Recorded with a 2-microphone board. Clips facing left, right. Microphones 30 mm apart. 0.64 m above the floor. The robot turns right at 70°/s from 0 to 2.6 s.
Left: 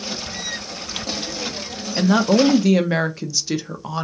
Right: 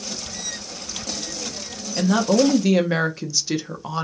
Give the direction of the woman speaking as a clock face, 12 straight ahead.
8 o'clock.